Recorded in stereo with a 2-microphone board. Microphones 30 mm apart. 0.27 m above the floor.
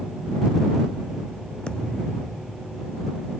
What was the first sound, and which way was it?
A thud, 30° left (ahead or behind).